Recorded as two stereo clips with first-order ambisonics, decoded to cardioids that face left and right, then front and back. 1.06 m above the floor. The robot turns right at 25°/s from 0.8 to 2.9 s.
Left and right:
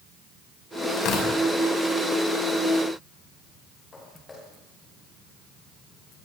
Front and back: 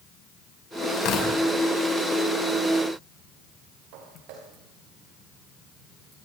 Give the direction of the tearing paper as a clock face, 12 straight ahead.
11 o'clock.